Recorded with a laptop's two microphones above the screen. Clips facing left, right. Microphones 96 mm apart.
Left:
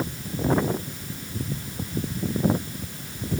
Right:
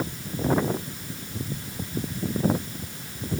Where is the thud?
No thud in this recording.